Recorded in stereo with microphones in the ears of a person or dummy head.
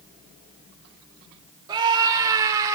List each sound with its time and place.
1.7 s a scream: 30° right (ahead or behind), 2.5 m; by 2.8 s 25° right (ahead or behind), 3.5 m